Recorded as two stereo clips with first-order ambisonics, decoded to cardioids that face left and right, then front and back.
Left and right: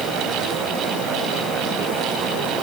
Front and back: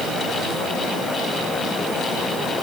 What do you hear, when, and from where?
Only background noise.